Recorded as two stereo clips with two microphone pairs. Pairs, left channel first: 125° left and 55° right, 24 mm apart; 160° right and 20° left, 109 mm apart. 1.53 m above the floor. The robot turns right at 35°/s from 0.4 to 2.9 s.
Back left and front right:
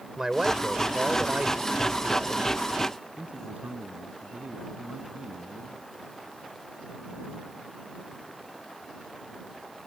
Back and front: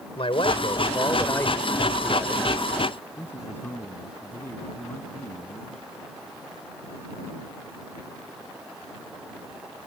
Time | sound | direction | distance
0.2 | a man speaking | 125° right | ?
3.2 | a man speaking | 85° right | ?